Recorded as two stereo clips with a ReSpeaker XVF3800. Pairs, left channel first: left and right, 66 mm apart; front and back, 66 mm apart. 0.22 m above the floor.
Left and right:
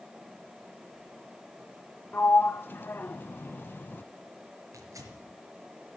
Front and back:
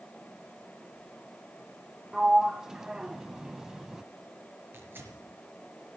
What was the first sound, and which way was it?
A sliding door, 110° left.